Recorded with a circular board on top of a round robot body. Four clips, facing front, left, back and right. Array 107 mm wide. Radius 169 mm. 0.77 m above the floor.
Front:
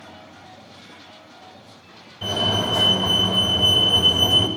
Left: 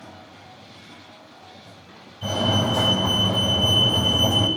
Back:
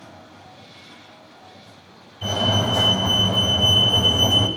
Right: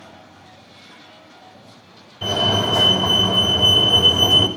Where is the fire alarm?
70° right, 6.5 m.